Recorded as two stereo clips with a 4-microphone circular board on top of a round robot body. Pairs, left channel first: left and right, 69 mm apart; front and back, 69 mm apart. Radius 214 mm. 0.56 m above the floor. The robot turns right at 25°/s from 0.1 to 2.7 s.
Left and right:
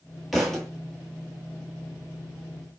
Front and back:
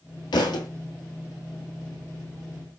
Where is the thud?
Straight ahead, 1.3 m; by 0.7 s 5° left, 1.3 m.